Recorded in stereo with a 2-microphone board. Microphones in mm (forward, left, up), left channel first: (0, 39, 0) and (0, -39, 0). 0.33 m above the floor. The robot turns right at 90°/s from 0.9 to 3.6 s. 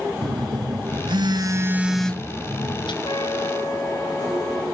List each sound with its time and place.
0.2 s a phone buzzing: 100° right, 1.2 m; by 2.9 s 85° left, 1.2 m
3.0 s a trumpet: 85° left, 1.7 m; by 4.6 s 140° left, 1.7 m